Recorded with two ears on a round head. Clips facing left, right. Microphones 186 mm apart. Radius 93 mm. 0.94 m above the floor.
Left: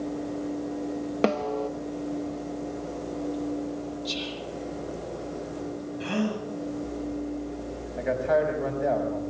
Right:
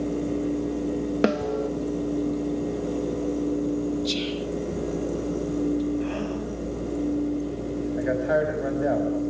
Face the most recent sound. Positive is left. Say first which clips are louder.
# even
turn(degrees=-5)  # may be behind; listen again after turning